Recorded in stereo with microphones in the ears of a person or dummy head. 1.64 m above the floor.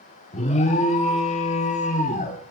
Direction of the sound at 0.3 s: 35° left (ahead or behind).